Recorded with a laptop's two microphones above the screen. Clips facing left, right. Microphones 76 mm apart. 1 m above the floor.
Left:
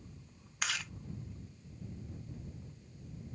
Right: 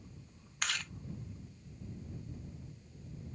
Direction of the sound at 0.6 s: Centre (ahead or behind).